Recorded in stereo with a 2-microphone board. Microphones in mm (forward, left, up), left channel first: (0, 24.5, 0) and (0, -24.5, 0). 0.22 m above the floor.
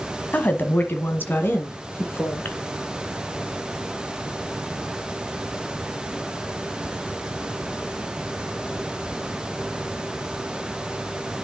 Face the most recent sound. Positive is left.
turn(degrees=45)  # may be behind; listen again after turning